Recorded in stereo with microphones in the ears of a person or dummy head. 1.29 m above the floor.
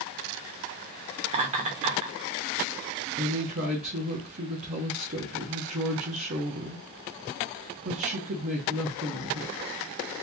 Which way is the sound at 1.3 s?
40° right (ahead or behind).